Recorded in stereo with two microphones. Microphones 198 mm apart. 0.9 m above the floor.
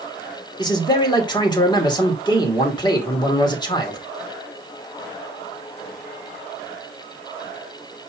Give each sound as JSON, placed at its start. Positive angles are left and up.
{"t": 0.6, "sound": "a man speaking", "side_deg": 20, "distance_m": 2.5}